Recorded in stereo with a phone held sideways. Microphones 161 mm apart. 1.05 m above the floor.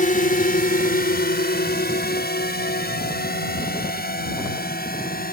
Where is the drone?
55° left (ahead or behind); by 5.3 s 70° left (ahead or behind).